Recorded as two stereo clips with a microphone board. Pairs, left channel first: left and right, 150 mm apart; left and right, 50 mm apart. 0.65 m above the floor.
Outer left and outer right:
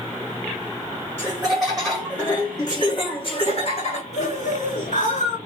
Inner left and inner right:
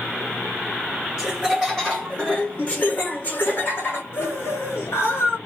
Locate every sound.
1.2 s laughter: 10° right (ahead or behind), 1.2 m; by 5.4 s 60° left (ahead or behind), 1.9 m